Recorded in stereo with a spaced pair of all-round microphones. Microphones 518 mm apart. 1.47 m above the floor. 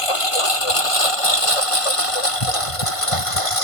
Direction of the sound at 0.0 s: 80° left.